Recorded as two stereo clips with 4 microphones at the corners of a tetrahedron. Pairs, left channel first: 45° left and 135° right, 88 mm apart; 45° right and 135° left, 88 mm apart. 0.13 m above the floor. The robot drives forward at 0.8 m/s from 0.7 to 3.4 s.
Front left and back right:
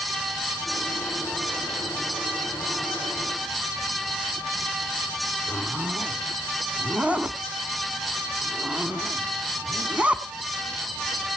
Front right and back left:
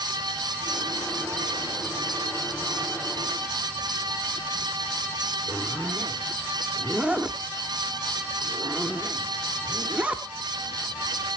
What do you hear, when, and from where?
5.5 s a zipper: 175° left, 0.7 m